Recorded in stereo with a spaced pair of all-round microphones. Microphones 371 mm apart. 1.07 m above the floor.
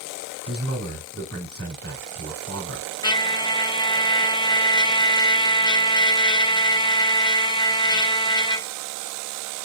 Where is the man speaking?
40° right (ahead or behind), 2.5 m.